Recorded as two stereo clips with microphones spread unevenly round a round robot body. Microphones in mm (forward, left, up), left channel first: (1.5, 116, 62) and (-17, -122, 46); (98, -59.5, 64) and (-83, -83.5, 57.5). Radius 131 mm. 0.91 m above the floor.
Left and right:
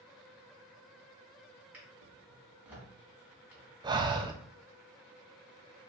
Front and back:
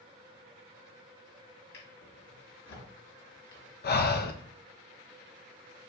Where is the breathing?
25° right, 0.6 m.